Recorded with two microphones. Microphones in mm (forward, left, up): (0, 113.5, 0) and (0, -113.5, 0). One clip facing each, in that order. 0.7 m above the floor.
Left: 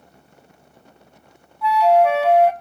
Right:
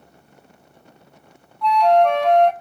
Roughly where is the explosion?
No explosion in this recording.